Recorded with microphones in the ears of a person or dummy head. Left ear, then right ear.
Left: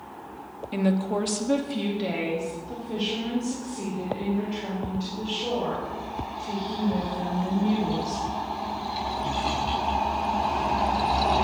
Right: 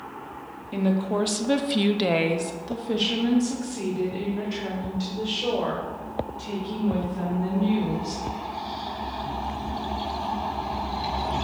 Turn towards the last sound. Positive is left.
turn(degrees=-70)  # may be behind; listen again after turning